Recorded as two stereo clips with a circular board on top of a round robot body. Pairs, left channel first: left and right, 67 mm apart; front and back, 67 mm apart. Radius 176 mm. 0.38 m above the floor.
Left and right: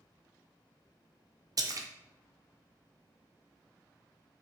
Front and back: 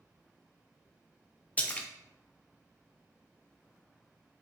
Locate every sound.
1.6 s a splash: 70° right, 0.6 m